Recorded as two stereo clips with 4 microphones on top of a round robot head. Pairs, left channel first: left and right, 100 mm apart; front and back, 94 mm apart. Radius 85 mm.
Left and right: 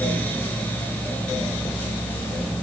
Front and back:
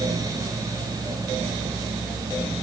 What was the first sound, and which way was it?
Only background noise.